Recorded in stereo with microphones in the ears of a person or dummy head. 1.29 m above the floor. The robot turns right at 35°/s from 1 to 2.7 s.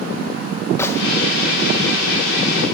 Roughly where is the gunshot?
Centre.